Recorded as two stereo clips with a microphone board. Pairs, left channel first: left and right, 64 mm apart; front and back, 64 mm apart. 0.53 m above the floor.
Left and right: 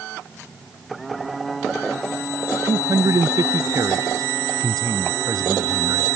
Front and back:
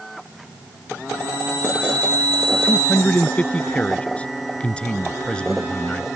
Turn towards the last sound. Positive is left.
turn(degrees=-80)